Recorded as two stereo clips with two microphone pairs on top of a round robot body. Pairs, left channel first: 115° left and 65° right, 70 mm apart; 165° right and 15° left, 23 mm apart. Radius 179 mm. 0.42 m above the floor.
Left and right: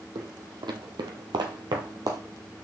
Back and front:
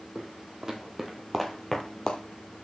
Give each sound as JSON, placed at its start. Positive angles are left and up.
{"t": 0.1, "sound": "footsteps", "azimuth_deg": -45, "distance_m": 1.2}